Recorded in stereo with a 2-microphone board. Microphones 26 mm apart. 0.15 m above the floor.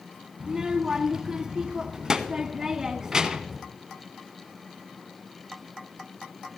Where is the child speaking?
20° right (ahead or behind), 0.8 m.